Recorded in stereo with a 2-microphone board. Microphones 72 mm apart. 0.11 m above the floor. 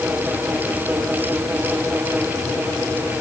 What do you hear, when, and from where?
Only background noise.